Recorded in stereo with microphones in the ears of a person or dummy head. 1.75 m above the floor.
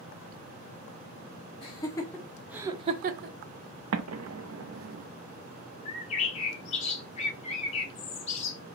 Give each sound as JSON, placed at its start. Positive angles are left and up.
{"t": 1.6, "sound": "laughter", "side_deg": 30, "distance_m": 1.3}
{"t": 3.9, "sound": "an explosion", "side_deg": -80, "distance_m": 0.5}
{"t": 5.8, "sound": "a bird", "side_deg": 40, "distance_m": 0.9}